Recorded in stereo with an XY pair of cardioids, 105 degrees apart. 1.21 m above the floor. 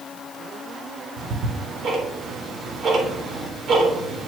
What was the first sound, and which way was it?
Ticking, 60° right.